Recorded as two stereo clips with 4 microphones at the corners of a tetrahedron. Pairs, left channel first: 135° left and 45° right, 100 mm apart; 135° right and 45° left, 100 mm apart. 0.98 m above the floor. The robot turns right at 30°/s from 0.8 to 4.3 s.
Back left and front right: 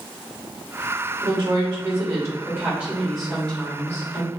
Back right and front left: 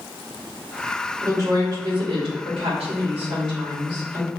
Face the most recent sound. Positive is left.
turn(degrees=75)